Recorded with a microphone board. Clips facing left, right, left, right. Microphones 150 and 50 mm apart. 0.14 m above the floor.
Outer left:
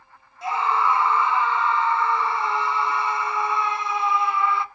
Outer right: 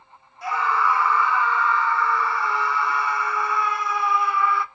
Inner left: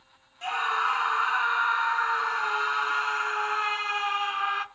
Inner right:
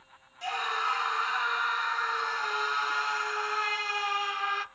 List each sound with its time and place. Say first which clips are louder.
0.4 s a scream: outer left 1 dB, inner left 4 dB; 25° left (ahead or behind), 1.2 m